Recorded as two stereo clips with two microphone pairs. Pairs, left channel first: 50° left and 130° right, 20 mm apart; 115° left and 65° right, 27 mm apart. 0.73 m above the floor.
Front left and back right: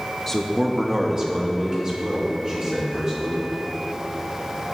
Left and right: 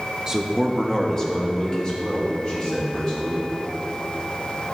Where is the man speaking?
10° right, 0.7 m; by 3.5 s 175° left, 3.5 m.